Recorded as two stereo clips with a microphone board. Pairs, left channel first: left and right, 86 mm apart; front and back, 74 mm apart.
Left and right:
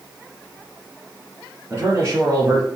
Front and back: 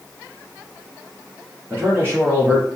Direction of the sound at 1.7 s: 135° right.